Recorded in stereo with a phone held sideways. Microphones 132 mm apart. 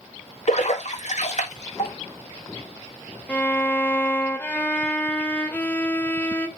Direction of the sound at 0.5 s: 60° left (ahead or behind).